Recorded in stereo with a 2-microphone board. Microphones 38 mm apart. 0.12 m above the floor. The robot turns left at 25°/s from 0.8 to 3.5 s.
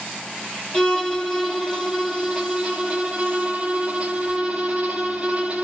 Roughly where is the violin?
Ahead left.